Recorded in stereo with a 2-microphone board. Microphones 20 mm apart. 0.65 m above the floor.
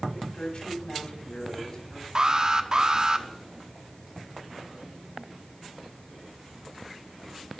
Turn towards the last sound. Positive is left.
turn(degrees=-40)  # may be behind; listen again after turning